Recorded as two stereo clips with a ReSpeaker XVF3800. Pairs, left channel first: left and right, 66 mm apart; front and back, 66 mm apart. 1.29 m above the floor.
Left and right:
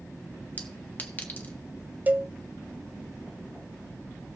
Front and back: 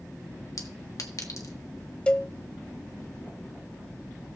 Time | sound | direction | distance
0.6 | a clink | 30° left | 1.5 m
2.1 | a cowbell | 60° right | 0.5 m